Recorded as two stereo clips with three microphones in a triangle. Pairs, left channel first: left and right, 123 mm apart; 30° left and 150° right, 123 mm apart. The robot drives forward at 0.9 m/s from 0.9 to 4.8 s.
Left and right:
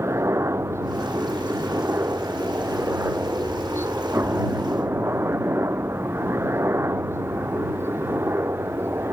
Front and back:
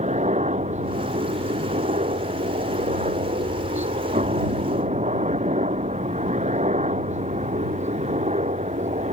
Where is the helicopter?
155° right; by 9.1 s 160° right.